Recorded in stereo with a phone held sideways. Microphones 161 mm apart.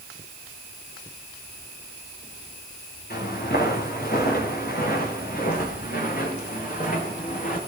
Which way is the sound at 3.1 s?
80° left.